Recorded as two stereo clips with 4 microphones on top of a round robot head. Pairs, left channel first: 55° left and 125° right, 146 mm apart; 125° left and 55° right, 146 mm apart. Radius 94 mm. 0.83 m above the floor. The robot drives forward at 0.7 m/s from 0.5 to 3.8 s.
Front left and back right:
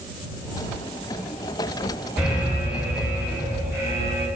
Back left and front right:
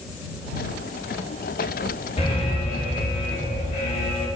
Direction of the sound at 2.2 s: 150° left.